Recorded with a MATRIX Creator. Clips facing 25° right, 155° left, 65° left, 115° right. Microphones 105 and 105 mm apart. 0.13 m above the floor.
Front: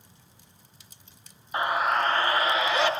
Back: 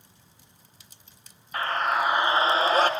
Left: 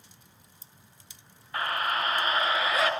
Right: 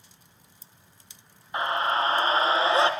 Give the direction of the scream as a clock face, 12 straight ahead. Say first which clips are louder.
Front 1 dB, right 4 dB; 2 o'clock.